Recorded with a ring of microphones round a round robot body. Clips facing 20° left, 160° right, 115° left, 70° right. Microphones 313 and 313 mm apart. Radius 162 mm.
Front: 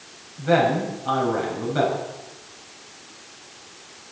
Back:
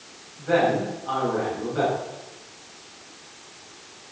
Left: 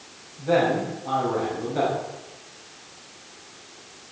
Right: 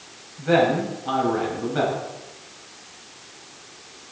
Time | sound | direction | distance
0.4 | a man speaking | 5° right | 5.5 m